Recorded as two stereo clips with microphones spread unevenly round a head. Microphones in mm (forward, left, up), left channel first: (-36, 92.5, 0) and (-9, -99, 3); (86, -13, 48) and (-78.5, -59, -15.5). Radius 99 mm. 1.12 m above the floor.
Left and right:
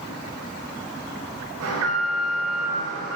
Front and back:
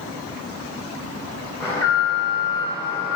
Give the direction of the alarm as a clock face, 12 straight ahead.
2 o'clock.